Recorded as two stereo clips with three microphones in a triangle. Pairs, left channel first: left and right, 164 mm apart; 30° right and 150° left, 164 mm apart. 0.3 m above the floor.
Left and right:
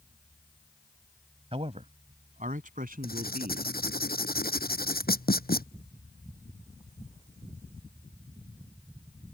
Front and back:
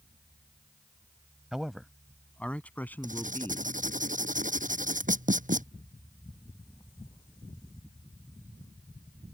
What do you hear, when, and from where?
1.5 s a man speaking: 125° right; by 3.8 s 105° right
3.0 s writing: 110° left